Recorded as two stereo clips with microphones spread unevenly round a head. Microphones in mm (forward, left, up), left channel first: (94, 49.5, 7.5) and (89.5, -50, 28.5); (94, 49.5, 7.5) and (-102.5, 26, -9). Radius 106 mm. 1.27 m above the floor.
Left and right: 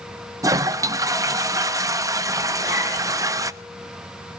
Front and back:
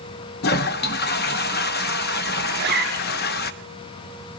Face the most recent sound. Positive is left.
turn(degrees=150)